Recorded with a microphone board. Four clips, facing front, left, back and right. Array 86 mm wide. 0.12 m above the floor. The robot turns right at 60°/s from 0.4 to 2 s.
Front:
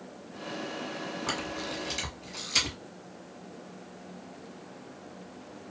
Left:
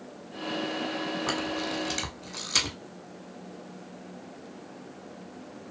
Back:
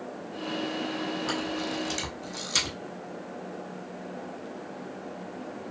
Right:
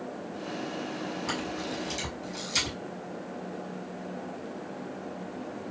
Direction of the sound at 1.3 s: 65° left.